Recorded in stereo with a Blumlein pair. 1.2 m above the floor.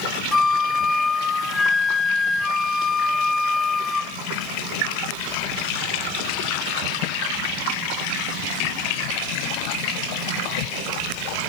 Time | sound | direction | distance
0.3 | a flute | 10° left | 0.8 m